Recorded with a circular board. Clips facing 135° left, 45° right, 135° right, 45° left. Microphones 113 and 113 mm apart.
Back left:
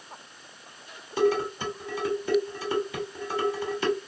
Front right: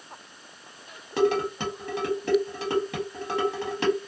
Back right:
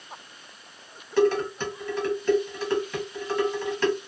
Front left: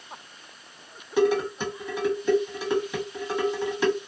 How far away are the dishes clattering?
About 1.1 m.